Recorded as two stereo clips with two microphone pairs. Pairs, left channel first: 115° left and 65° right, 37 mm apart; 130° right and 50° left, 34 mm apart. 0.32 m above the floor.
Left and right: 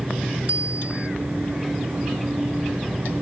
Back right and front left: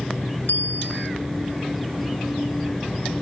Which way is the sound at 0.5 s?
115° right.